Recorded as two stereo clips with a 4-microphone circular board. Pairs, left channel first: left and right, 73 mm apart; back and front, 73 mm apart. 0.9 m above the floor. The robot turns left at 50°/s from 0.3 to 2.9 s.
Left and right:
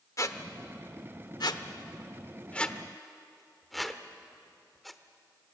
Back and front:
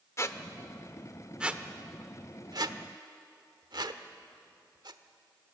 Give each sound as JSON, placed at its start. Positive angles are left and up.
{"t": 0.2, "sound": "a squeak", "azimuth_deg": 130, "distance_m": 1.1}